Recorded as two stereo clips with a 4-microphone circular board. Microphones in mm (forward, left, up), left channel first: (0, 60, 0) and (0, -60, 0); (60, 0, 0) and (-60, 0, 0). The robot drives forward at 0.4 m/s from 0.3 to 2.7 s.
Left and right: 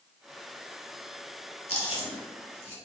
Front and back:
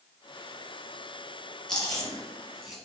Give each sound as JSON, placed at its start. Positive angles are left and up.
{"t": 1.7, "sound": "chewing", "azimuth_deg": 85, "distance_m": 3.0}